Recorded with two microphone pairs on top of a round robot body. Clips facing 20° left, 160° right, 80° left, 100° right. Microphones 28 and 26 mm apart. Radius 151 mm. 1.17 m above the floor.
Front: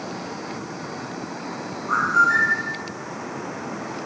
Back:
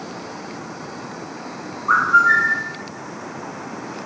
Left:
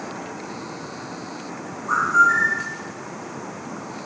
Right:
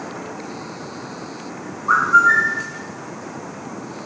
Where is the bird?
135° right, 0.7 m.